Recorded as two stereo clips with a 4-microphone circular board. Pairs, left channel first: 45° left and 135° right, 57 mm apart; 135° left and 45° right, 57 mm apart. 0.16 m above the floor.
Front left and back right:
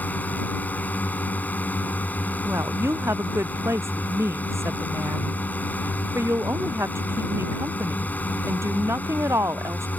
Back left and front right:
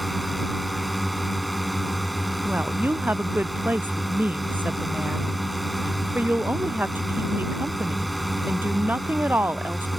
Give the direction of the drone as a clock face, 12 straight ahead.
10 o'clock.